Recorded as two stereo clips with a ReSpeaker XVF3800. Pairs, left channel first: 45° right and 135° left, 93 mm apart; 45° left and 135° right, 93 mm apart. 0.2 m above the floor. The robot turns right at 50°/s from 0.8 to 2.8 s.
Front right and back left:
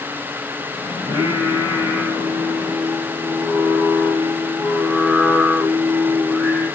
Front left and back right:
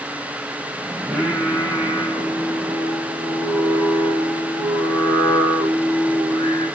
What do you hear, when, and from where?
1.0 s singing: 140° left, 6 m; by 6.7 s 130° right, 6 m